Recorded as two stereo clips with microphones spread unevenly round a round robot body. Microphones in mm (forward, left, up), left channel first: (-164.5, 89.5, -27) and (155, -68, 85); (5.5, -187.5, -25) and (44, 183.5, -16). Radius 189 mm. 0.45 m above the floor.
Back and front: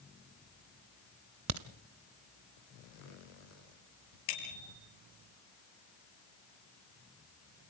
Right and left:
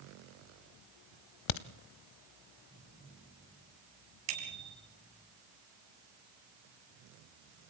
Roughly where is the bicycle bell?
Behind left.